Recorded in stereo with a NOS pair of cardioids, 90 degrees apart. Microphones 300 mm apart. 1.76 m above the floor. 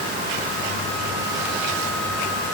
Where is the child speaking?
I don't hear a child speaking.